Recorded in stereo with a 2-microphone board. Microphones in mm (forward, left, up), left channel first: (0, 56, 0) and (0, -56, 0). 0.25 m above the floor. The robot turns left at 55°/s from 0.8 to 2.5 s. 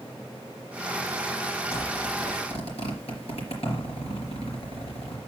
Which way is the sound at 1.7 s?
30° left (ahead or behind).